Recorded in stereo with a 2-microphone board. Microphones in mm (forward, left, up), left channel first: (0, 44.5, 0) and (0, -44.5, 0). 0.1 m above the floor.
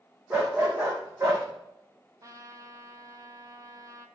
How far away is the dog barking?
About 2.5 m.